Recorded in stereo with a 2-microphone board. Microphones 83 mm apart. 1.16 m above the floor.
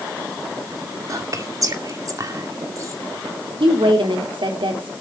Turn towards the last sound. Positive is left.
turn(degrees=-85)